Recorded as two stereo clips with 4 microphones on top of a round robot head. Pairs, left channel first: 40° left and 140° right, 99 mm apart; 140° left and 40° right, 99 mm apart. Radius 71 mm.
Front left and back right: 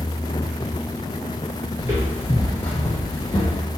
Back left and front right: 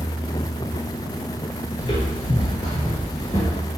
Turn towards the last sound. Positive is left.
turn(degrees=85)